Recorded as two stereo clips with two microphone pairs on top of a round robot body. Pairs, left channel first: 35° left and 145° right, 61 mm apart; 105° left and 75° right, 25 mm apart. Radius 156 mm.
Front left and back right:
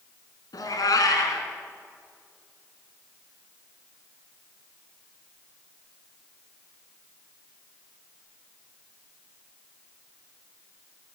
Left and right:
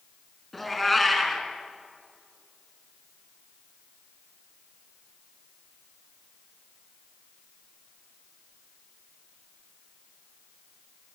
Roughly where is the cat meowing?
Ahead.